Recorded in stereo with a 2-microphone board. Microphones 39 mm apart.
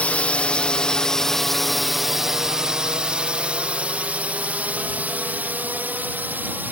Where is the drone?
40° left (ahead or behind); by 6.7 s 55° right (ahead or behind).